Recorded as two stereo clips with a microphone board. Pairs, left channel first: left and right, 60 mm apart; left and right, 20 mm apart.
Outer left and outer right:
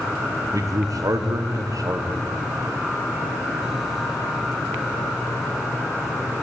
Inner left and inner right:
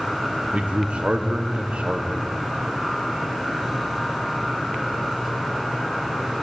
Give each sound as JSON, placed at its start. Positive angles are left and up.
{"t": 0.5, "sound": "a man speaking", "side_deg": -70, "distance_m": 0.8}